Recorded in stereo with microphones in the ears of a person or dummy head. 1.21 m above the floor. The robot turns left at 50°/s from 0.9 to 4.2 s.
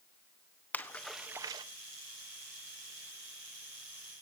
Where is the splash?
10° left (ahead or behind), 1.4 m; by 1.6 s 25° right (ahead or behind), 1.4 m.